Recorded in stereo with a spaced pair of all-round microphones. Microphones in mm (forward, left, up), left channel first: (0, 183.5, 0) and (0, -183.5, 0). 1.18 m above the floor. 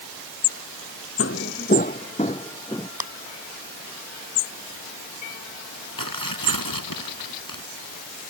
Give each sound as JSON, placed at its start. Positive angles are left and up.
{"t": 1.2, "sound": "footsteps", "side_deg": 35}
{"t": 3.0, "sound": "a clap", "side_deg": -70}
{"t": 6.0, "sound": "tearing paper", "side_deg": 65}